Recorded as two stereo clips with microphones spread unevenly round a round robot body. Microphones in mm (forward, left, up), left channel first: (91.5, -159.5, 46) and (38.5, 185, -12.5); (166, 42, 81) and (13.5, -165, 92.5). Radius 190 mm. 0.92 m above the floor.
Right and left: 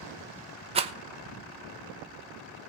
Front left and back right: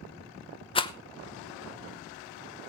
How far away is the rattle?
About 0.9 m.